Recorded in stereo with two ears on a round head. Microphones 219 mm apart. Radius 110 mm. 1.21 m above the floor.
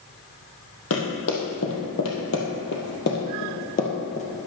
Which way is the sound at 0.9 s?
60° left (ahead or behind).